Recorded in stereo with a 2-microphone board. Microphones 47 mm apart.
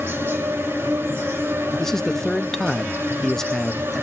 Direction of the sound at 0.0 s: 65° right (ahead or behind).